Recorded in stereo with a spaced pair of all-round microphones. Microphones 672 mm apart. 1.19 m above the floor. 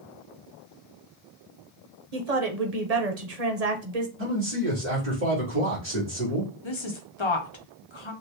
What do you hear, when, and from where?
2.1 s a woman speaking: 65° right (ahead or behind), 1.0 m
4.2 s a man speaking: 20° right (ahead or behind), 2.5 m
6.6 s a woman speaking: 45° left (ahead or behind), 1.0 m